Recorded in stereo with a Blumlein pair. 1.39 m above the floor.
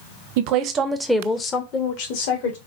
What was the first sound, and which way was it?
A woman speaking, 50° right.